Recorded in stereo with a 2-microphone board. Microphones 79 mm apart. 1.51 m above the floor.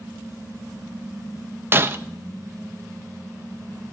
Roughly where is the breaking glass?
Right.